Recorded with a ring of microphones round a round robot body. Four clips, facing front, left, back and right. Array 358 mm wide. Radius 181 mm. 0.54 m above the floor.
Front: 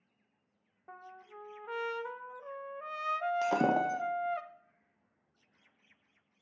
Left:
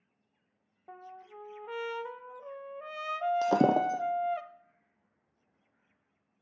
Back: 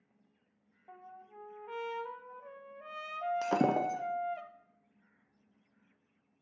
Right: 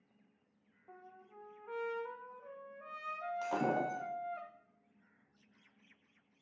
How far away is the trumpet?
About 0.9 m.